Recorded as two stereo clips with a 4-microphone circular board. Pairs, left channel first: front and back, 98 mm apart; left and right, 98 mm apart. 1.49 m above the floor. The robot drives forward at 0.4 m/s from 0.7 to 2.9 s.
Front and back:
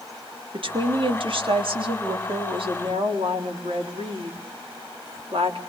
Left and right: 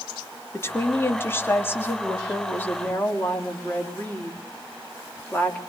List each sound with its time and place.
0.5 s a woman speaking: 155° left, 3 m; by 5.6 s 160° left, 4 m